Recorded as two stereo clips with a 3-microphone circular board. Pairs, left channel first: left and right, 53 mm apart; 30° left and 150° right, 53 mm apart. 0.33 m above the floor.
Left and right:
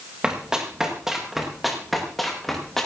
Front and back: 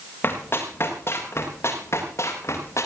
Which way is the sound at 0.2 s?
15° right.